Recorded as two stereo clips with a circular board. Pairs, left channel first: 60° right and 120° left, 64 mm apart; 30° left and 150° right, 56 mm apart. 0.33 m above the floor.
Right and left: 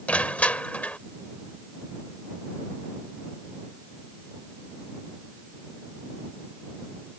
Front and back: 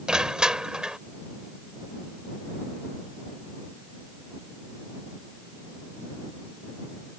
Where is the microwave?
No microwave in this recording.